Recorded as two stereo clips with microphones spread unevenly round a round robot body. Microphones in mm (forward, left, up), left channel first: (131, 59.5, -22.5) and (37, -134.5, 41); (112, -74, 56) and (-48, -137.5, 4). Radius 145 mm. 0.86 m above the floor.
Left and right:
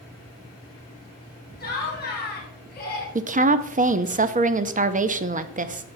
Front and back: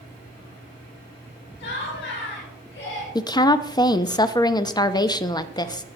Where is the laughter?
20° left, 5.5 m.